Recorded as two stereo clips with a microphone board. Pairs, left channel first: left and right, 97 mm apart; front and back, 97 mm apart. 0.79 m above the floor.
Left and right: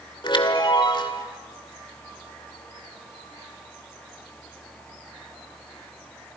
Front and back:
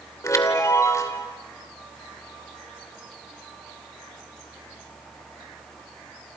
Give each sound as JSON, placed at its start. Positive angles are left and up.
{"t": 0.2, "sound": "a chime", "azimuth_deg": 55, "distance_m": 2.0}